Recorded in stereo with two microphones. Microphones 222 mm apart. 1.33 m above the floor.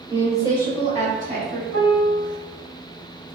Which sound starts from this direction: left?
A piano, at 1.7 s.